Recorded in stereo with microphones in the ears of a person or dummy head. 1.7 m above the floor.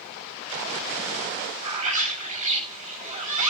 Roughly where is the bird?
Right.